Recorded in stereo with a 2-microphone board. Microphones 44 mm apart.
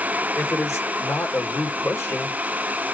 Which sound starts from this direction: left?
A man speaking, at 0.3 s.